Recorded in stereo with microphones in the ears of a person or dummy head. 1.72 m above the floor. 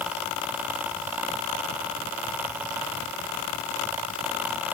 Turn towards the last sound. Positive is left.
No sound to turn to.